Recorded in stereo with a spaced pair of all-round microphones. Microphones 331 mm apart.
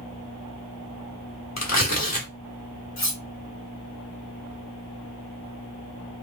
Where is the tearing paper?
50° left (ahead or behind), 1.3 m.